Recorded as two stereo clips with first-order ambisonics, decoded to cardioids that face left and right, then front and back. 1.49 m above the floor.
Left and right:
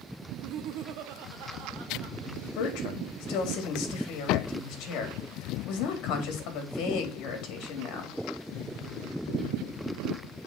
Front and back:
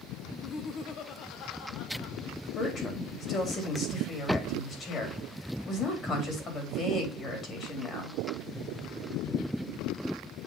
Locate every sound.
0.3 s laughter: 60° right, 0.7 m; by 2.2 s 45° right, 1.6 m
2.5 s a woman speaking: 60° left, 3 m